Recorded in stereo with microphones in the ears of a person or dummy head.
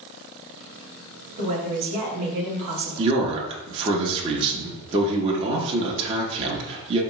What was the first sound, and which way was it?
A woman speaking, 40° right (ahead or behind).